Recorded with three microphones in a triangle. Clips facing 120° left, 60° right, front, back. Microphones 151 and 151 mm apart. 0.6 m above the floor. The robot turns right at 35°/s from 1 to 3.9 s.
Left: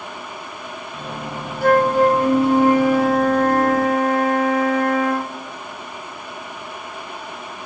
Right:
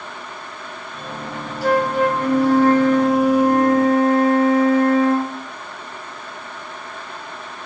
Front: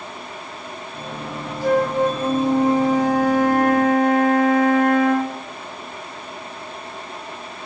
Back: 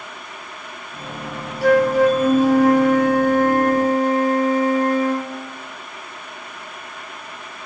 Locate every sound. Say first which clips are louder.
1.6 s a flute: left 3 dB, back 4 dB; 160° left, 2.5 m; by 5.4 s 120° right, 2.5 m